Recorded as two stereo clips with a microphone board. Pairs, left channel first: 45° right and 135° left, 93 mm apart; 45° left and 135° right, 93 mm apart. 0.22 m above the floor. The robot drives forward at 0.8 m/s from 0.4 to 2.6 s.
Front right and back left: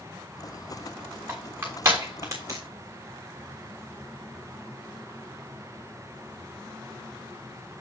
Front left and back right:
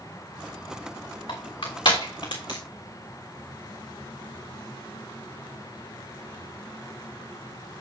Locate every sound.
1.3 s crushing: 65° left, 3.5 m; by 2.6 s 80° left, 3.5 m